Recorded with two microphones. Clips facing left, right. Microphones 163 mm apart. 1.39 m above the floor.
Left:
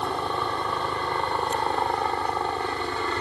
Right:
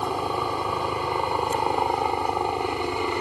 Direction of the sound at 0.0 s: 10° right (ahead or behind).